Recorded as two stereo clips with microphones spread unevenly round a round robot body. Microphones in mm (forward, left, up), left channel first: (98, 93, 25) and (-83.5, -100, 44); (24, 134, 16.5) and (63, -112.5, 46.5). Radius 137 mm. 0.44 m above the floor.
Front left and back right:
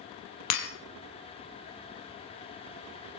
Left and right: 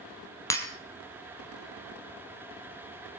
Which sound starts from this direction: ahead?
Breaking glass, at 0.5 s.